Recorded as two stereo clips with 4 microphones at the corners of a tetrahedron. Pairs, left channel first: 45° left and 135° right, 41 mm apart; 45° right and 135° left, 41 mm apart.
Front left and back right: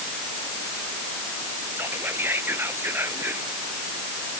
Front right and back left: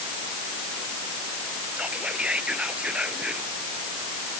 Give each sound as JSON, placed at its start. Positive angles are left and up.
{"t": 1.8, "sound": "whispering", "azimuth_deg": -160}